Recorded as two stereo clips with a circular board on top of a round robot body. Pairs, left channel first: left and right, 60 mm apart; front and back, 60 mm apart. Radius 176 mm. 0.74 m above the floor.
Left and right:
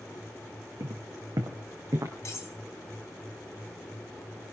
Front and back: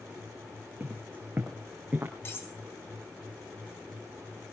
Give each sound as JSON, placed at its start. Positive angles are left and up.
{"t": 0.8, "sound": "footsteps", "azimuth_deg": -120, "distance_m": 3.0}
{"t": 2.2, "sound": "cutlery clinking", "azimuth_deg": 50, "distance_m": 4.0}